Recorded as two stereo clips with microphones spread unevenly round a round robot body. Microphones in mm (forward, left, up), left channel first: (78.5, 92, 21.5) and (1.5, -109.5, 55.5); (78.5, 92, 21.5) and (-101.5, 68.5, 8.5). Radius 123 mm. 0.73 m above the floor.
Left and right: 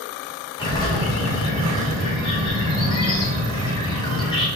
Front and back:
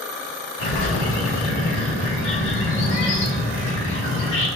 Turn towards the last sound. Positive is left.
turn(degrees=0)